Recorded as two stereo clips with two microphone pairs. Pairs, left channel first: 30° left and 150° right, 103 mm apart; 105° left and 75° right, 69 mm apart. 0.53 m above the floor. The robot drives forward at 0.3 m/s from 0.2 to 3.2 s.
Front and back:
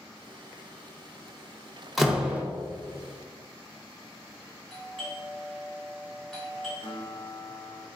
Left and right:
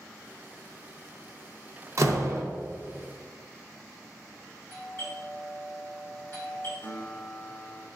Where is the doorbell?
115° left, 1.9 m.